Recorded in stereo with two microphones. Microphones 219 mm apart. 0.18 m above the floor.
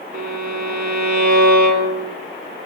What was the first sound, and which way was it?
A violin, 45° right (ahead or behind).